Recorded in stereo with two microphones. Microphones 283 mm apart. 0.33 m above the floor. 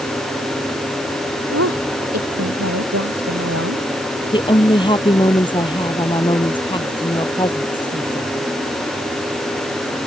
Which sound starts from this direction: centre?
A woman speaking, at 4.3 s.